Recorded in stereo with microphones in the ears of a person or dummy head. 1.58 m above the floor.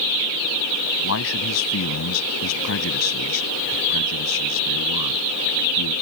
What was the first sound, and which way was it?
A man speaking, 85° left.